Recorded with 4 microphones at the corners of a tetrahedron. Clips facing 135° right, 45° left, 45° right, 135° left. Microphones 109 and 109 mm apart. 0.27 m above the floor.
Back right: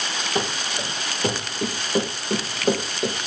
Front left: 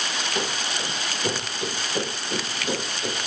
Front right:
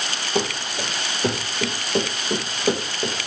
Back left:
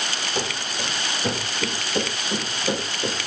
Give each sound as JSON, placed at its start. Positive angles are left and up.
{"t": 0.3, "sound": "running footsteps", "azimuth_deg": -75, "distance_m": 5.5}